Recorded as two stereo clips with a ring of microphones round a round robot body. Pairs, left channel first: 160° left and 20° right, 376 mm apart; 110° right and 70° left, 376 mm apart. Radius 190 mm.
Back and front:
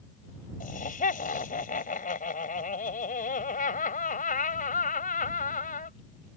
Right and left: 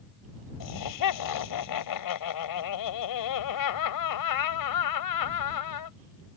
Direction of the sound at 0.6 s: 135° right.